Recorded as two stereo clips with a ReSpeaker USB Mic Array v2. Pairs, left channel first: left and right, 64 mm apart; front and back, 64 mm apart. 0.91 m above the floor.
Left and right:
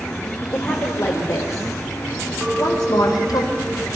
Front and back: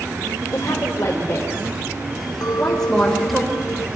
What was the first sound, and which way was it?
A woman speaking, 35° left.